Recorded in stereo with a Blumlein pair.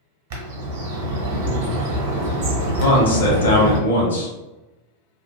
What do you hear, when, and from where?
0.3 s a bird: 50° right, 1.0 m
2.8 s a man speaking: 70° left, 1.1 m